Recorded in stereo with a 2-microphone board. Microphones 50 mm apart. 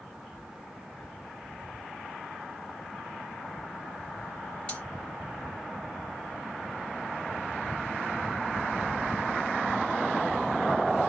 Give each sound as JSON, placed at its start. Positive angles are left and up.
{"t": 4.7, "sound": "cutlery clinking", "side_deg": 25, "distance_m": 2.0}